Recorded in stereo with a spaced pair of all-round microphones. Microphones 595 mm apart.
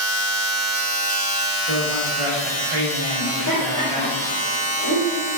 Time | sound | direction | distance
0.0 | a machine running | 25° left (ahead or behind) | 1.9 m
1.7 | a man speaking | 70° right (ahead or behind) | 0.8 m
3.2 | laughter | 20° left (ahead or behind) | 1.2 m